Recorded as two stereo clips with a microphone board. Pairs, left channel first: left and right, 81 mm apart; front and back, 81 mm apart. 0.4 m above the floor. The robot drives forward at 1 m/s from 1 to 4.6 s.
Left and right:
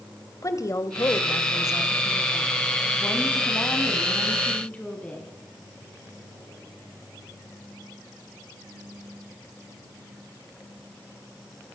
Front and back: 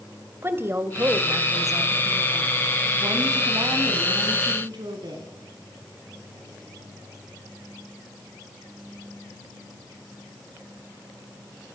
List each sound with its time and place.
0.4 s a woman speaking: 130° left, 2 m; by 5.3 s 165° left, 5 m